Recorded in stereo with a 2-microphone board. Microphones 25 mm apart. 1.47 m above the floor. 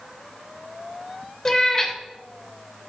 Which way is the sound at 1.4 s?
15° left (ahead or behind).